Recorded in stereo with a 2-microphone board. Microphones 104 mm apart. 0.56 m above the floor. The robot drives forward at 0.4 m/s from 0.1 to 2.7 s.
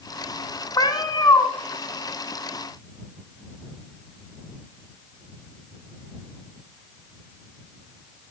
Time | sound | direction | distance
0.8 | a cat meowing | 40° left (ahead or behind) | 1.0 m